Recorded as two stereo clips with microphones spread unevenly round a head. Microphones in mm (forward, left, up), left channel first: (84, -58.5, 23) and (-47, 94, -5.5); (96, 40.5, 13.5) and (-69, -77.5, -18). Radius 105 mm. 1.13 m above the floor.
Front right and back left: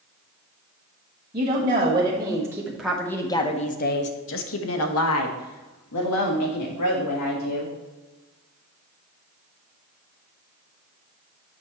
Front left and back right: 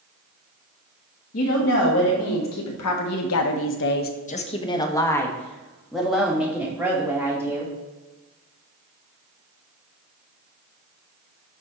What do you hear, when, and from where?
1.3 s a woman speaking: 70° left, 1.8 m; by 7.7 s 65° right, 3 m